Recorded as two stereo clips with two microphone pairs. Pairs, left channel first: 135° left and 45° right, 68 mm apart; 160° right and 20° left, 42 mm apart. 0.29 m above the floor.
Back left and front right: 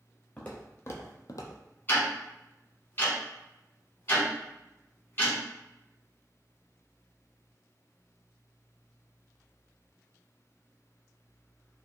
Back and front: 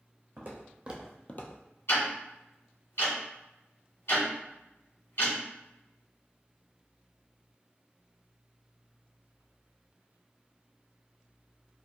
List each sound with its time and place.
0.4 s footsteps: 65° left, 1.2 m; by 1.6 s 175° right, 0.7 m
1.9 s ticking: 165° right, 1.6 m